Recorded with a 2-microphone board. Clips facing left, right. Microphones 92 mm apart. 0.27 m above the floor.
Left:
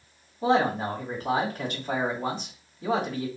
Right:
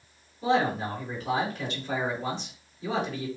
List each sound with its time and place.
0.4 s a man speaking: 45° left (ahead or behind), 2.5 m